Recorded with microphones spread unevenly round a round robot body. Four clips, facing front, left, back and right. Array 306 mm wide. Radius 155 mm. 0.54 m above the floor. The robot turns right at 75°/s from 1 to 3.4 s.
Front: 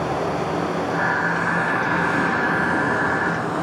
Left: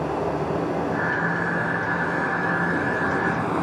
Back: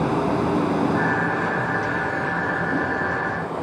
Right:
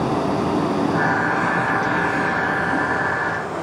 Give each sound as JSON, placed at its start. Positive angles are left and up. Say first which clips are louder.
{"t": 0.0, "sound": "running water", "louder": "right 4 dB, back 2 dB", "azimuth_deg": -125, "distance_m": 2.0}